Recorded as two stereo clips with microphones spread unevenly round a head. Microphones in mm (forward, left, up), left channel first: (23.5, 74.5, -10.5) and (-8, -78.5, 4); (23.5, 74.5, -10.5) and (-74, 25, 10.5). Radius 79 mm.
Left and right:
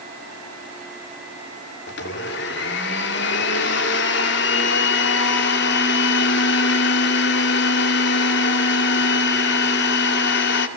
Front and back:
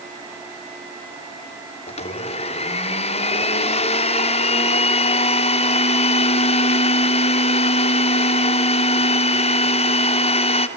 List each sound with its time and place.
1.9 s a blender: 55° left, 2.5 m